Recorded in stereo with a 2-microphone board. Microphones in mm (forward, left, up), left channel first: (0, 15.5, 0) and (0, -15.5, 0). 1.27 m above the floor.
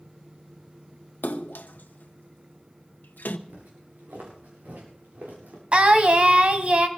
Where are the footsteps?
65° right (ahead or behind), 7 m; by 5.6 s 80° right, 8 m.